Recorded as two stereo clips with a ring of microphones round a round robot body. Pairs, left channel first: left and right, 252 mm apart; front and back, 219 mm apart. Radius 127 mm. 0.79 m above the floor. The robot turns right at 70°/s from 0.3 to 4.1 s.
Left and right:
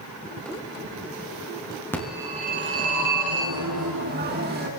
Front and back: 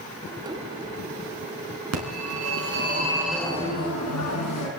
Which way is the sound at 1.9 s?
170° left.